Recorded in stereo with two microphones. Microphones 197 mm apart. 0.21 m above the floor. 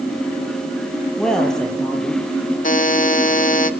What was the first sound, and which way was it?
A woman speaking, 5° left (ahead or behind).